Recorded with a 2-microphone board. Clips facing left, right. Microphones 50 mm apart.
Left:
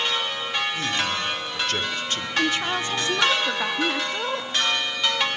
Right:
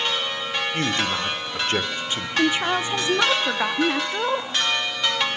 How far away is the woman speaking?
About 0.8 m.